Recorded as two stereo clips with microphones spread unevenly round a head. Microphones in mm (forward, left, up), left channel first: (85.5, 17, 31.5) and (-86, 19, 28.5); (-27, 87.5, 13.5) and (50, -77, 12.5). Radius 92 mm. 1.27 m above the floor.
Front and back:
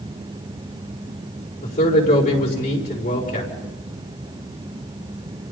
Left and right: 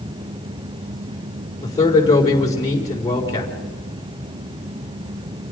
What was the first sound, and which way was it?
A man speaking, 45° left.